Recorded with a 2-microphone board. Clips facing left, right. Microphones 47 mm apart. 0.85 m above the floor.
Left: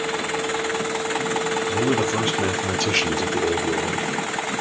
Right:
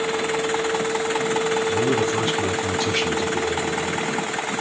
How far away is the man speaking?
About 3.5 m.